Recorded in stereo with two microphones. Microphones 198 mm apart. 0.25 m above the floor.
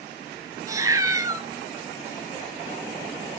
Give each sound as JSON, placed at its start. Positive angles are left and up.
{"t": 0.7, "sound": "a cat meowing", "side_deg": -15, "distance_m": 0.6}